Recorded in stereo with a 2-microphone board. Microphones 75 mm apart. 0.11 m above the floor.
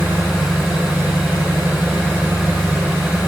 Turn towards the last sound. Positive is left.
turn(degrees=-15)  # may be behind; listen again after turning